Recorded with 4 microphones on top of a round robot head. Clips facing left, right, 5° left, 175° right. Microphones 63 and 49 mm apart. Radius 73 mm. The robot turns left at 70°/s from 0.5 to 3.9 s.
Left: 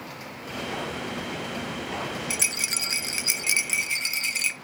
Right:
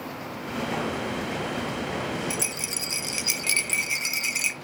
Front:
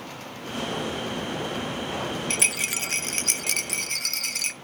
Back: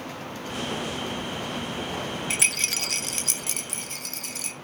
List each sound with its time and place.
2.3 s a rattle: 105° left, 0.8 m; by 4.5 s 5° right, 0.8 m